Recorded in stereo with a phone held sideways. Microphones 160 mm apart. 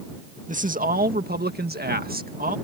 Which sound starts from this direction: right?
A man speaking, at 0.5 s.